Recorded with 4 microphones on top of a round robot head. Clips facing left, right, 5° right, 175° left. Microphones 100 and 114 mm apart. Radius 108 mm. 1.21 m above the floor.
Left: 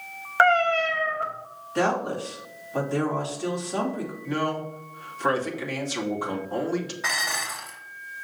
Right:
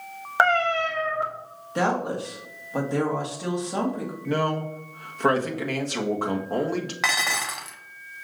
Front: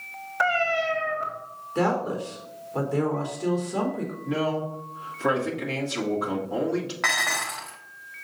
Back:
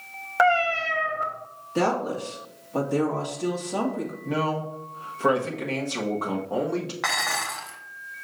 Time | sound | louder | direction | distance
0.4 | a cat meowing | left 2 dB, back 3 dB | 155° right | 1.2 m
1.8 | a woman speaking | even, even | 160° right | 1.8 m
4.2 | a man speaking | right 3 dB, front 1 dB | 130° right | 1.5 m
7.0 | dishes clattering | right 3 dB, even | 95° right | 0.6 m